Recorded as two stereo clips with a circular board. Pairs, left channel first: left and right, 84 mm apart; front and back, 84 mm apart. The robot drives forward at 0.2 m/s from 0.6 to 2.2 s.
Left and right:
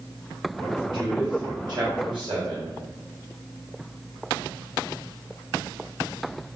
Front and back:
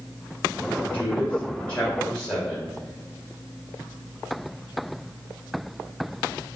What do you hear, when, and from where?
0.9 s a man speaking: 70° right, 1.9 m; by 2.7 s 75° right, 1.8 m